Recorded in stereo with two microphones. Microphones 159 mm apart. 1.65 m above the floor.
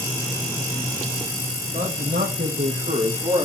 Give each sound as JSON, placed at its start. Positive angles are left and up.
{"t": 1.7, "sound": "a man speaking", "side_deg": -75, "distance_m": 2.0}